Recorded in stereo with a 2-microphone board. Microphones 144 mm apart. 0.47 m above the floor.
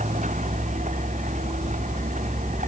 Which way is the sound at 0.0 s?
60° right (ahead or behind).